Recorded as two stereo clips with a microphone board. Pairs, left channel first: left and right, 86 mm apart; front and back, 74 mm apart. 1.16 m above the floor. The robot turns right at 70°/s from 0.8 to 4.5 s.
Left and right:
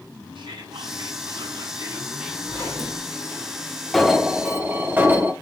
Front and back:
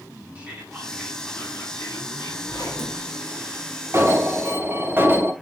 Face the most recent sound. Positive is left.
turn(degrees=-145)